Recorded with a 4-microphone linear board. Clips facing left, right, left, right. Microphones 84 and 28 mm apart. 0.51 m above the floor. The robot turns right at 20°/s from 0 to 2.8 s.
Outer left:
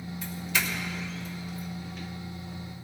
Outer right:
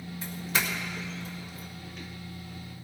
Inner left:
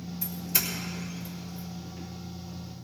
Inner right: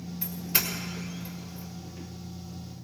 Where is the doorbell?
35° right (ahead or behind), 2 m; by 1.7 s 55° right (ahead or behind), 2 m.